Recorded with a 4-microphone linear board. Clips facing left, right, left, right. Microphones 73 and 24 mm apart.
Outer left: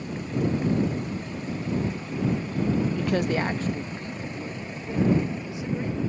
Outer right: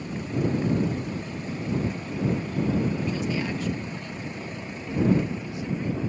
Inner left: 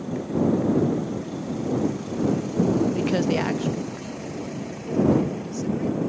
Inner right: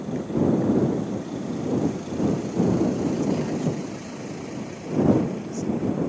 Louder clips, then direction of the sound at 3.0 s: Outer left 3 dB, inner left 2 dB; 75° left (ahead or behind).